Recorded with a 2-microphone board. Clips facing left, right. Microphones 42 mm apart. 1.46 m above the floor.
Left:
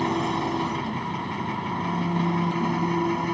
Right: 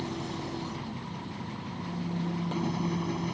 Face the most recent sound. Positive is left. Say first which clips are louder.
# left 11 dB
turn(degrees=75)  # may be behind; listen again after turning